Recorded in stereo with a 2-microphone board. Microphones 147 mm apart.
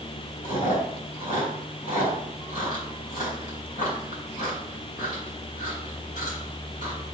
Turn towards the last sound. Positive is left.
turn(degrees=75)  # may be behind; listen again after turning